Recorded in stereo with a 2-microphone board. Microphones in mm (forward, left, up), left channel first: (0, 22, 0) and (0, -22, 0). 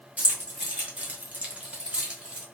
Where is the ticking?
No ticking in this recording.